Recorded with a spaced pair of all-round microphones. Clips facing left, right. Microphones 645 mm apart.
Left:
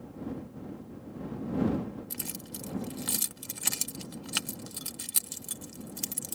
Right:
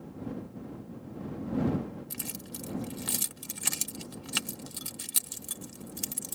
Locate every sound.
2.1 s keys jangling: centre (ahead or behind)